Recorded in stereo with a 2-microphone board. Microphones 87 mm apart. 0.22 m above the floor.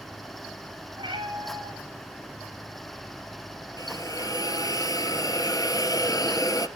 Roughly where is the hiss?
Left.